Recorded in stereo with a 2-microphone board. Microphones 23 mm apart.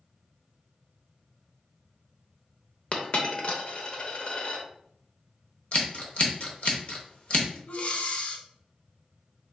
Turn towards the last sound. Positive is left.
turn(degrees=60)  # may be behind; listen again after turning